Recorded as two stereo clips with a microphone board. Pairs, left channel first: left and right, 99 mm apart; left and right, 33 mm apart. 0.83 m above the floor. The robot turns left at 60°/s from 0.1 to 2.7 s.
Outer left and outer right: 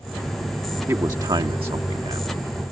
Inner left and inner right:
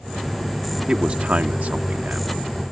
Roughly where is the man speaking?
Ahead right.